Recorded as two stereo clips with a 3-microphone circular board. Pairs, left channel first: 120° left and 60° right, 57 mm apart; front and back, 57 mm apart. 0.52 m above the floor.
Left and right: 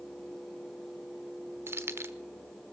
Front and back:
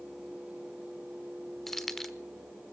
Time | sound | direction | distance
1.7 | keys jangling | 85° right | 1.1 m